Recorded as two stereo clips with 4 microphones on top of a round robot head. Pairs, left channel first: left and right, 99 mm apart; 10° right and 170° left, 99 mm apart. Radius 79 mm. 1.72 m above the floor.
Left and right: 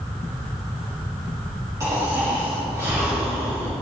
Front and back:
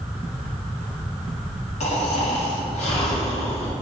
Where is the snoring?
25° right, 1.9 m.